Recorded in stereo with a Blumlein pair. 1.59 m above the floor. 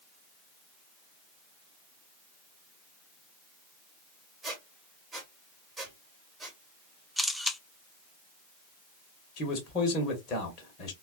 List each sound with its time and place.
4.4 s a squeak: 10° right, 1.4 m
7.2 s a camera shutter: straight ahead, 0.6 m
9.4 s a man speaking: 30° left, 1.2 m